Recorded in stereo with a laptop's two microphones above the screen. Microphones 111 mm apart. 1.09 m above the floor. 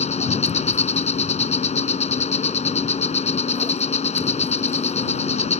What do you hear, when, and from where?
0.0 s an insect: 85° left